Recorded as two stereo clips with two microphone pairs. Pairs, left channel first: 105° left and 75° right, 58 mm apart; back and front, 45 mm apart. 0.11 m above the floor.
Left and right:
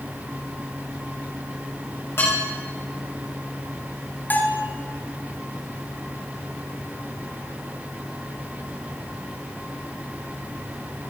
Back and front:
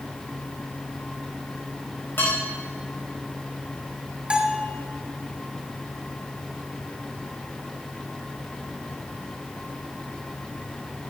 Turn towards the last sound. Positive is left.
turn(degrees=65)